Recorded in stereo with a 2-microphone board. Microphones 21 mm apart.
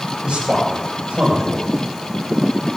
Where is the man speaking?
90° right, 4.5 m.